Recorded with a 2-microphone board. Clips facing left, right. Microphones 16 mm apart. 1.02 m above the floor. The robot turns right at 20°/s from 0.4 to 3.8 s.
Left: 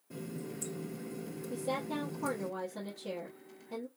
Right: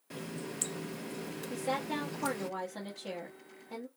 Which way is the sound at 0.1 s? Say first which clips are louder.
Right 1 dB; 115° right.